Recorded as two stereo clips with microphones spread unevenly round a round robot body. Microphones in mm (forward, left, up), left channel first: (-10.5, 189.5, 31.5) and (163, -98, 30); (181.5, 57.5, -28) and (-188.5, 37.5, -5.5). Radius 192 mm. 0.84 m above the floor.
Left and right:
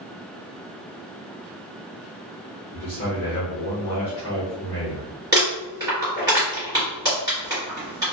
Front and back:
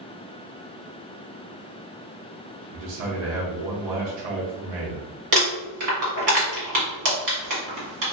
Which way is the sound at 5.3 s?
140° right.